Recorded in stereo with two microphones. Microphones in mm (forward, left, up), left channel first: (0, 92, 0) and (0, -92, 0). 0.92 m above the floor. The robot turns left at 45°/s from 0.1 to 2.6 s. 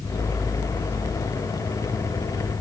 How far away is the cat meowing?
I don't hear a cat meowing.